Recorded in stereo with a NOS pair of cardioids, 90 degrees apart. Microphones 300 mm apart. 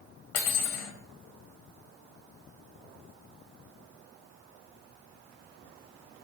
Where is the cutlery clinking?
60° left, 0.8 m.